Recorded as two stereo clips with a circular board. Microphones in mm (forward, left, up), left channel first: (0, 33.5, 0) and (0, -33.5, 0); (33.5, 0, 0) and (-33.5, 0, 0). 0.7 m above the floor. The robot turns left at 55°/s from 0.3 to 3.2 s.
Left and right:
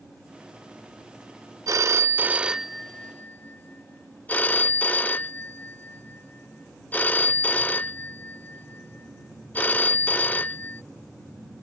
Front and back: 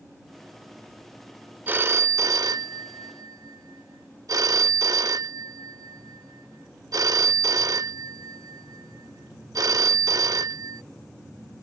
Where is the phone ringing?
120° right; by 10.8 s 155° left.